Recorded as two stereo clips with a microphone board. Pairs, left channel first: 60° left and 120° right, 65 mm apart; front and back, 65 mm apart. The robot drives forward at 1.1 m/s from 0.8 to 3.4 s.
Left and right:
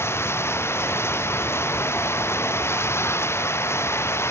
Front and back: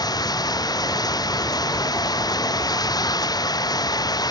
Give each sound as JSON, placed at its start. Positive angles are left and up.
{"t": 0.0, "sound": "running water", "azimuth_deg": 10}